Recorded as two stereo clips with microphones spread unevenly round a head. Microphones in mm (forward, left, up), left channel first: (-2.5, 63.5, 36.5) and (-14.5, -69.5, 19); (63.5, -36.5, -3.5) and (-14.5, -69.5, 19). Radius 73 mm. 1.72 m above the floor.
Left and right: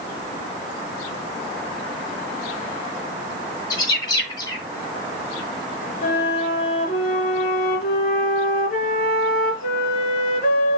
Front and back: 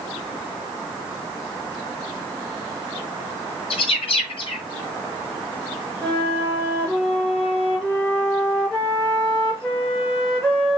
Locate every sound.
3.7 s a bird: 40° left, 2.5 m
6.0 s a flute: 110° left, 3.5 m